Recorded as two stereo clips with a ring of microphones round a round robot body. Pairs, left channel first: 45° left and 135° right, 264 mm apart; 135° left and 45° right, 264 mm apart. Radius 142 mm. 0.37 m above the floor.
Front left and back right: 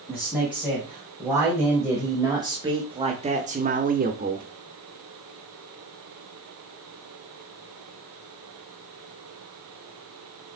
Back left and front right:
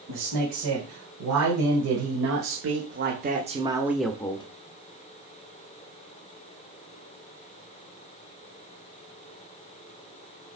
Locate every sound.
0.1 s a man speaking: 50° right, 2.5 m; by 4.5 s 165° right, 0.9 m